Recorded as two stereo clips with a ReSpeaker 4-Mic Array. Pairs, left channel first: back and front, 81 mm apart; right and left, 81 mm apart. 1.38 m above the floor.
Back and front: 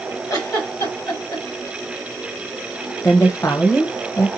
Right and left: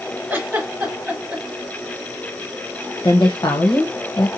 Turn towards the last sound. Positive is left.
turn(degrees=-125)